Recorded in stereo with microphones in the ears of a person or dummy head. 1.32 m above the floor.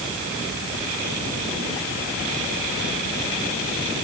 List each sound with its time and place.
Only background noise.